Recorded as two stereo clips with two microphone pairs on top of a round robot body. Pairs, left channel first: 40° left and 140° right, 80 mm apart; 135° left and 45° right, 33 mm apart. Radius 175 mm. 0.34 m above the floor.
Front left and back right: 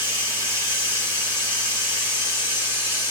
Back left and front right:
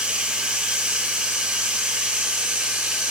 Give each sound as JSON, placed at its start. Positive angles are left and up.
{"t": 0.0, "sound": "running water", "azimuth_deg": 20, "distance_m": 3.0}